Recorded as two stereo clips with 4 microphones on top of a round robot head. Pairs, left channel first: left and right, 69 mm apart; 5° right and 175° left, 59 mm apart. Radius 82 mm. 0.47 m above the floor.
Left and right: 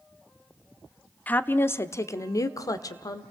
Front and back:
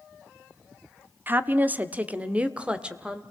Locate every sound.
1.3 s a woman speaking: 140° left, 1.1 m; by 3.2 s 100° left, 2.0 m